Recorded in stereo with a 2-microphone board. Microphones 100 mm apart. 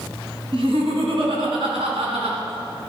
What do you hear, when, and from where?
0.5 s laughter: 70° right (ahead or behind), 2.5 m; by 2.4 s 80° right, 4 m